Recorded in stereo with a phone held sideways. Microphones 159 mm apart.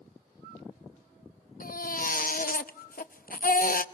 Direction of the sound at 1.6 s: 65° left (ahead or behind).